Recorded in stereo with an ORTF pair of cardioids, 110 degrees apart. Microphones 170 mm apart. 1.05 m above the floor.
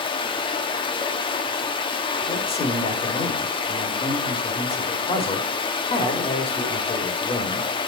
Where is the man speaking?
35° left, 2.5 m.